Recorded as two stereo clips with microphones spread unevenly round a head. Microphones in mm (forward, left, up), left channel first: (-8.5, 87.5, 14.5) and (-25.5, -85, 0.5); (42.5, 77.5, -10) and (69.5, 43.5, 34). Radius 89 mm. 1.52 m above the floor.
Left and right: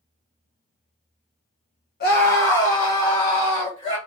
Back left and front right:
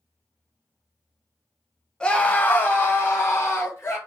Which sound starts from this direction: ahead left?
A scream, at 2.0 s.